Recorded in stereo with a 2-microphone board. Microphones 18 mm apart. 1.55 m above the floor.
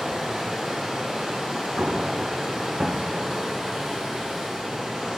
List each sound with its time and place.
0.0 s running water: 75° right (ahead or behind), 5.5 m
1.8 s an explosion: 70° right (ahead or behind), 0.8 m